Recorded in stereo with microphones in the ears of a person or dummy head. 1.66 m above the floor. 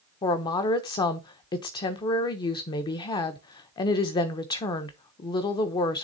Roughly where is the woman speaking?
Left.